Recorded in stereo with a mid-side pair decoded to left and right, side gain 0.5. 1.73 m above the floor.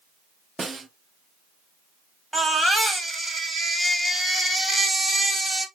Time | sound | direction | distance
0.6 | a snare drum | 25° right | 0.6 m
2.3 | a baby crying | 5° right | 1.7 m